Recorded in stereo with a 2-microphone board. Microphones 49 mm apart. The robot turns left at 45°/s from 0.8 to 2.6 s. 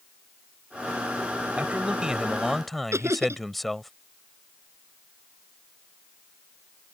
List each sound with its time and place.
1.6 s a man speaking: 135° right; by 3.9 s straight behind
2.9 s laughter: 70° right (ahead or behind)